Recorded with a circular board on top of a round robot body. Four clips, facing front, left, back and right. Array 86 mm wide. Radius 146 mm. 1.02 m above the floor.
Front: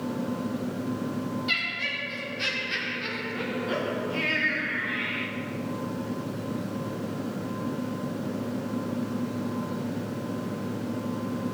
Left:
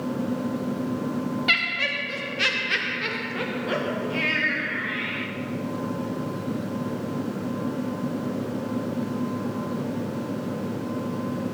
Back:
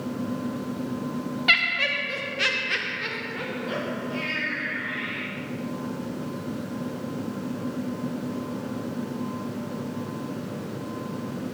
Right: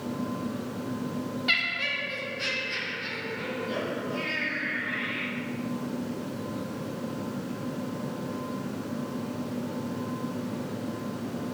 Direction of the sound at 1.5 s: 155° left.